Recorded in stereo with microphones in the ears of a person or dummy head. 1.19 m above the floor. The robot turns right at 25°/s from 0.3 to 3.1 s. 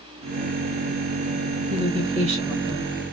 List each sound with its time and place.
1.7 s a woman speaking: 160° right, 1.1 m; by 3.0 s 130° right, 1.1 m